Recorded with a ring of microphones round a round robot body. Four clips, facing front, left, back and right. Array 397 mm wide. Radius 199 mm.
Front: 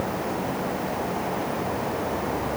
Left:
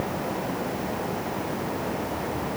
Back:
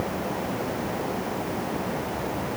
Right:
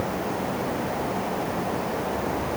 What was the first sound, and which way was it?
Only background noise.